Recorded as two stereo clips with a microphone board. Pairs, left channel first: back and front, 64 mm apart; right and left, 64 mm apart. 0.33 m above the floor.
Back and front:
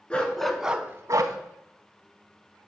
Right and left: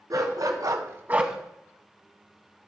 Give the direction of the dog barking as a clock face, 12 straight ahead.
8 o'clock.